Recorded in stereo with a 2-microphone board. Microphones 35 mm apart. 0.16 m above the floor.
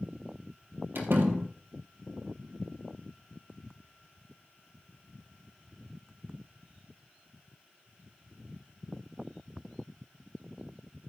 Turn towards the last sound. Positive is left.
turn(degrees=-75)  # may be behind; listen again after turning